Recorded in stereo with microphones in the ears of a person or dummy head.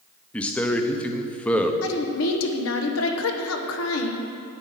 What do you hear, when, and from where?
0.3 s a man speaking: centre (ahead or behind), 0.7 m
1.8 s a woman speaking: 75° left (ahead or behind), 1.3 m